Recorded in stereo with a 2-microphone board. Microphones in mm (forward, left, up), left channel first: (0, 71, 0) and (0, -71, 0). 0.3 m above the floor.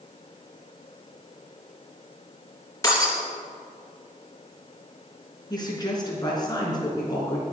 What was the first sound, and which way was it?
Breaking glass, 25° left (ahead or behind).